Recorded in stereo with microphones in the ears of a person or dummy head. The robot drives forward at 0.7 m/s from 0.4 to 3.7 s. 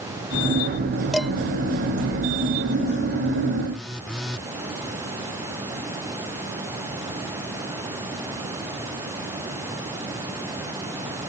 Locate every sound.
1.1 s dishes clattering: 5° right (ahead or behind)
3.7 s a phone buzzing: centre (ahead or behind)